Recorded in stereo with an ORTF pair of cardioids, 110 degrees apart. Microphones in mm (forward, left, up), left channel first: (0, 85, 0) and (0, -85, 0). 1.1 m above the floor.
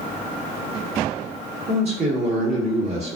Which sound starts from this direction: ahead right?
A man speaking, at 1.7 s.